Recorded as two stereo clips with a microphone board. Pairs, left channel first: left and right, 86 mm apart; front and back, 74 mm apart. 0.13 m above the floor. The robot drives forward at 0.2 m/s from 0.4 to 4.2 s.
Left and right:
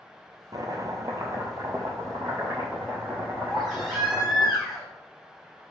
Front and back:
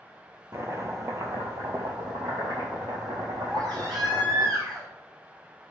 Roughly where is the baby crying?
Behind.